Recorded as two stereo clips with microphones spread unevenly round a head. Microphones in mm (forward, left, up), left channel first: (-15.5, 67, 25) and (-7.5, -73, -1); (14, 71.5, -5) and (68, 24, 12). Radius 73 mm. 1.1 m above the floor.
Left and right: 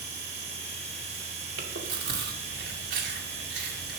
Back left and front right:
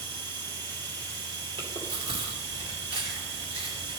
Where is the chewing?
75° right, 2 m.